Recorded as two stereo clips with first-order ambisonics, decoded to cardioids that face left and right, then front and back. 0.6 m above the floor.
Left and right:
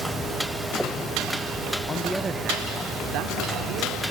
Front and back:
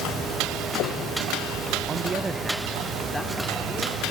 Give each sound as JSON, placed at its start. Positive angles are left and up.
{"t": 1.9, "sound": "a man speaking", "azimuth_deg": 135, "distance_m": 0.6}